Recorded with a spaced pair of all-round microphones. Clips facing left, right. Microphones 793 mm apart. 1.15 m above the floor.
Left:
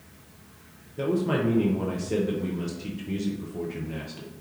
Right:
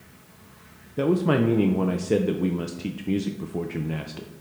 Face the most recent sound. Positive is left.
turn(degrees=-75)  # may be behind; listen again after turning